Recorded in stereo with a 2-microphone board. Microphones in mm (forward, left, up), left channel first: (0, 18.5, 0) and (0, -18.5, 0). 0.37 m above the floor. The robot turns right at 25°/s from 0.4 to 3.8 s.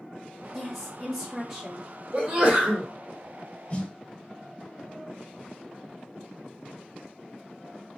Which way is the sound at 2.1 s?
30° right (ahead or behind).